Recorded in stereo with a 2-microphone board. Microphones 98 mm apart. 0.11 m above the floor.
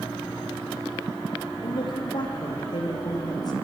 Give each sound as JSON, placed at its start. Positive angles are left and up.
{"t": 1.6, "sound": "a woman speaking", "side_deg": 50, "distance_m": 4.5}